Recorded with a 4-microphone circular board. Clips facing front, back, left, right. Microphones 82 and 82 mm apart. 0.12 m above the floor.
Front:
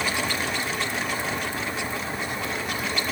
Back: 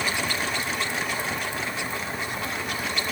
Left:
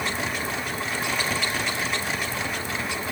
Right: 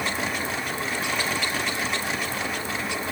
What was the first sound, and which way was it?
Only background noise.